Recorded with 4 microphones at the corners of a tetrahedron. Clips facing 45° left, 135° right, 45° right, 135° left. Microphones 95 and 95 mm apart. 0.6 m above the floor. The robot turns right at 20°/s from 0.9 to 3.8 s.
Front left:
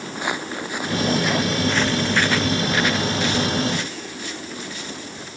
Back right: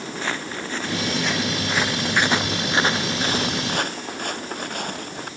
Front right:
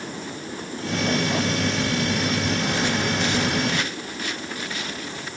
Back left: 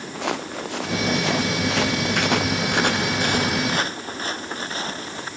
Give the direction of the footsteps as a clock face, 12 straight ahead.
8 o'clock.